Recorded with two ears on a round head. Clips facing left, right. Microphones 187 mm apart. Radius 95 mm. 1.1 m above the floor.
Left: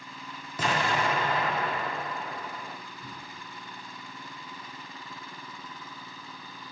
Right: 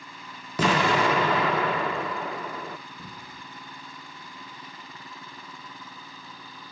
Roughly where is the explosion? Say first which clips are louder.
Right 6 dB; right.